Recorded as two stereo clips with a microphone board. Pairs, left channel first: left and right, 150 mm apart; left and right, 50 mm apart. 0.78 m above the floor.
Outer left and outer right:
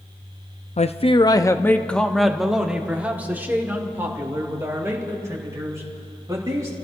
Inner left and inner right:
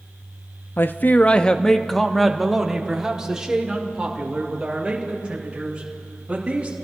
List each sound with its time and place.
0.8 s a man speaking: 45° left (ahead or behind), 0.6 m; by 6.8 s 20° right (ahead or behind), 3.5 m